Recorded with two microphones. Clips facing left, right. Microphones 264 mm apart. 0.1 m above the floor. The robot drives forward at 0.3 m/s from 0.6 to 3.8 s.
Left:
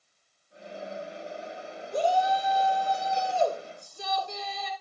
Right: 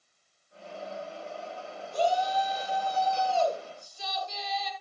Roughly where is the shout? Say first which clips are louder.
Left 2 dB; left.